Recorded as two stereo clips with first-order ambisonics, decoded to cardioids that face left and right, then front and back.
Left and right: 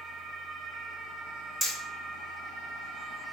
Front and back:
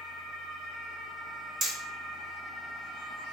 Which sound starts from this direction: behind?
Hammering, at 1.6 s.